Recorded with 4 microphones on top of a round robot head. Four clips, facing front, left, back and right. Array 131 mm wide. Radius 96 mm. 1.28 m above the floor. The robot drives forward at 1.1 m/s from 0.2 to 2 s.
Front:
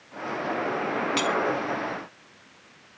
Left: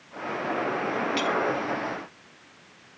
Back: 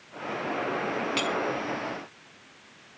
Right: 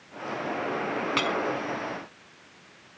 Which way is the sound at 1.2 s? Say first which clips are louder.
Even, front 5 dB; 75° right.